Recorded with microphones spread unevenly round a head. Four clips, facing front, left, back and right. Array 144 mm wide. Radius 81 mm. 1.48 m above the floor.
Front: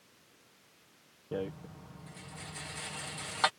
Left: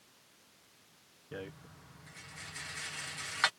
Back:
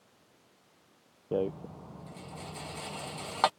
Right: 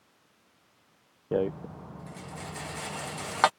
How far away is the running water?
I don't hear running water.